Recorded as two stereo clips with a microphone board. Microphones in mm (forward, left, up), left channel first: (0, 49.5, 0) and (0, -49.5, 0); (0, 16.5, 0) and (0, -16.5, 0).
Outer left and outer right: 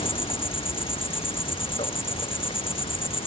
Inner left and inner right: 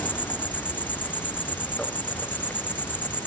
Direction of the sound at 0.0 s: 65° left (ahead or behind).